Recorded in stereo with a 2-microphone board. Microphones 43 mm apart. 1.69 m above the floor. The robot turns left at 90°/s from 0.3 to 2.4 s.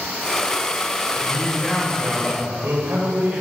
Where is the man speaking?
60° left, 9 m; by 3.4 s 50° right, 9 m.